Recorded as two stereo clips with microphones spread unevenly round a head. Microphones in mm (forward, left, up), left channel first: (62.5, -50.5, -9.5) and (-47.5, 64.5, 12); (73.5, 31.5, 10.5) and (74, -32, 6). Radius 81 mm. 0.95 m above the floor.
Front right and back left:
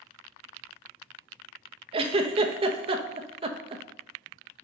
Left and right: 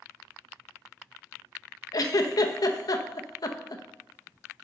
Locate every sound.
1.9 s a giggle: 75° left, 0.6 m